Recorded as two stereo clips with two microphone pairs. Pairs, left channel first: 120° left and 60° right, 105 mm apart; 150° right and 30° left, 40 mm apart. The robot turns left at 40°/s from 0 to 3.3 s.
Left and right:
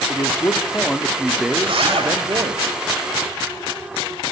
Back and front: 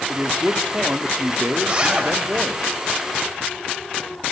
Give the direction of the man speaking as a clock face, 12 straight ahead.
9 o'clock.